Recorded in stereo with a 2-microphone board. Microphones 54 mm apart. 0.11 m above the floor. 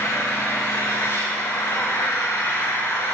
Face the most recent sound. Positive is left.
turn(degrees=75)  # may be behind; listen again after turning